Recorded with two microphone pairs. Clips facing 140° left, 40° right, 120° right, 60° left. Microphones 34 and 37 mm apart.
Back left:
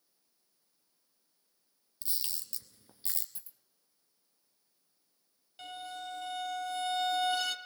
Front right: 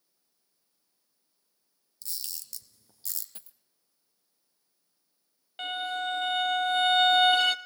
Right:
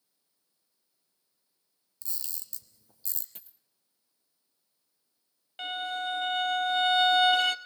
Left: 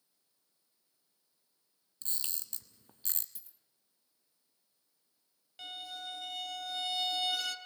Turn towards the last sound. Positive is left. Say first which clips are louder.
# front right 11 dB, right 11 dB
turn(degrees=-80)